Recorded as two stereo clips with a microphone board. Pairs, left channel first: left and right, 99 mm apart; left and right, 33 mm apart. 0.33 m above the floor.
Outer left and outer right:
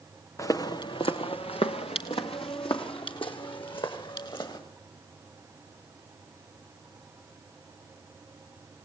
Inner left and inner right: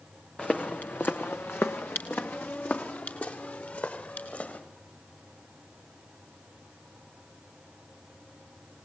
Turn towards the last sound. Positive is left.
turn(degrees=55)  # may be behind; listen again after turning